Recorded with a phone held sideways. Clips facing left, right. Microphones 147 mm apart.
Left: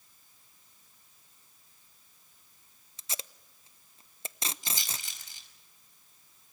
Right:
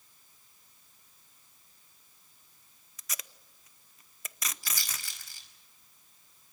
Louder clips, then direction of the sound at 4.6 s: Left 2 dB; 20° left (ahead or behind).